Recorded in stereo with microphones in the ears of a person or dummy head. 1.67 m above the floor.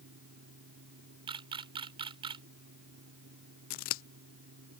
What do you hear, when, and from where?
0.0 s a fan: 60° right (ahead or behind)
1.3 s a camera shutter: 25° right (ahead or behind)
3.7 s scissors: 55° left (ahead or behind)